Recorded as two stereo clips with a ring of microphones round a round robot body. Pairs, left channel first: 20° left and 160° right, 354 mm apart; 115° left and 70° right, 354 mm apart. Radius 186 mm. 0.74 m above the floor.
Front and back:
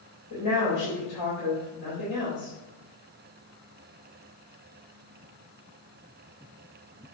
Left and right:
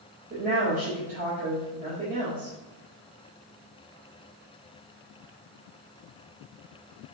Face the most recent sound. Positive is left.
turn(degrees=0)